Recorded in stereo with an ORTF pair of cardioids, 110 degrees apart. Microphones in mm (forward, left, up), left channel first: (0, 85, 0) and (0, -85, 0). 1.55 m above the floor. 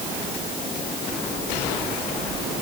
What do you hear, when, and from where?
Only background noise.